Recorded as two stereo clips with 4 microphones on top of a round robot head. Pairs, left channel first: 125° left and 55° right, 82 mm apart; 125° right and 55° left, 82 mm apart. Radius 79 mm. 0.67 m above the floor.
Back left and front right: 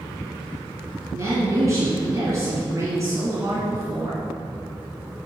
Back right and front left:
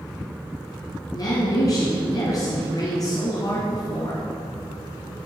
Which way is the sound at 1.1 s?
100° right.